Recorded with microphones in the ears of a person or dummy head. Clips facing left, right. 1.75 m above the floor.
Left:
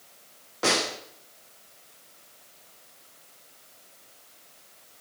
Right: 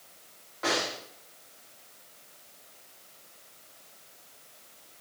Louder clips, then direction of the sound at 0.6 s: Left 3 dB; 55° left (ahead or behind).